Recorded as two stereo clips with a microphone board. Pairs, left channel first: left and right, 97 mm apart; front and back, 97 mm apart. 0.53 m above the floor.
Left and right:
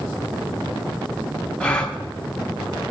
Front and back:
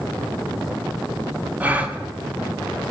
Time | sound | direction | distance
1.6 | a gasp | 145° left | 0.8 m